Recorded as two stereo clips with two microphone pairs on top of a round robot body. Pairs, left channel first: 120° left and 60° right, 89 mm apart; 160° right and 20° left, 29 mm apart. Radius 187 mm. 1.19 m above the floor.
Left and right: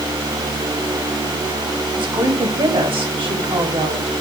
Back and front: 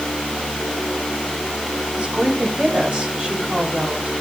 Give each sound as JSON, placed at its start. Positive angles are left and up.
{"t": 1.9, "sound": "a woman speaking", "azimuth_deg": -35, "distance_m": 6.5}